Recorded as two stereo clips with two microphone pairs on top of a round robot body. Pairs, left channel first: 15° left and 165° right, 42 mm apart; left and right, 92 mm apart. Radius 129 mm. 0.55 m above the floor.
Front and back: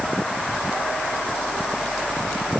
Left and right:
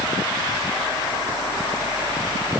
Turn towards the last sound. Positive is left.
No sound to turn to.